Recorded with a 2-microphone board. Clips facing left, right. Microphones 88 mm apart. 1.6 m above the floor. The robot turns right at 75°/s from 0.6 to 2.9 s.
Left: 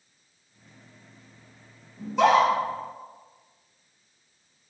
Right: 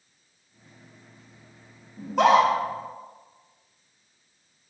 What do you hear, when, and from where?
2.0 s a scream: 40° right (ahead or behind), 3.5 m; by 2.5 s 80° right, 3.5 m